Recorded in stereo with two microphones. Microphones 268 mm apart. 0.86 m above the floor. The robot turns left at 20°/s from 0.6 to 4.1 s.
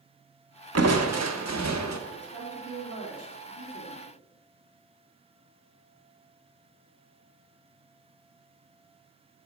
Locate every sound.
0.8 s crushing: 65° right (ahead or behind), 0.8 m; by 2.0 s 85° right, 0.8 m
2.1 s a woman speaking: 40° right, 2 m; by 4.0 s 80° right, 2 m